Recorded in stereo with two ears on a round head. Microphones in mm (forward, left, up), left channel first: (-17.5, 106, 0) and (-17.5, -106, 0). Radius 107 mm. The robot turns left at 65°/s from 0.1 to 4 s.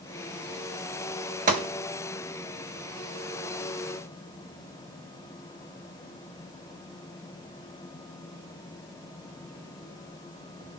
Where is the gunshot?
35° right (ahead or behind), 0.8 m; by 1.7 s 25° right (ahead or behind), 0.8 m.